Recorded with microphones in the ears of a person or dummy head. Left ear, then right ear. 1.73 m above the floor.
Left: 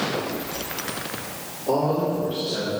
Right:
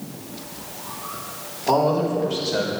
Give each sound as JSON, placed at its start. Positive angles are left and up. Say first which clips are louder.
{"t": 1.7, "sound": "a man speaking", "louder": "right 3 dB", "side_deg": -85, "distance_m": 4.0}